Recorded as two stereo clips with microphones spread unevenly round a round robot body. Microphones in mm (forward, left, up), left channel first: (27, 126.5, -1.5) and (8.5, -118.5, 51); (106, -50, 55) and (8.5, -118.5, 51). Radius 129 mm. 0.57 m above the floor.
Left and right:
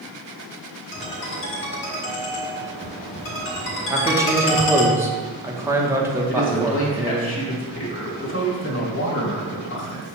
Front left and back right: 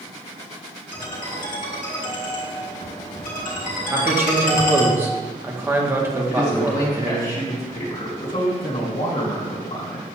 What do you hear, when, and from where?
0.9 s a ringtone: 40° left, 2.5 m
3.9 s a man speaking: 170° left, 1.0 m
6.3 s a man speaking: 55° left, 3 m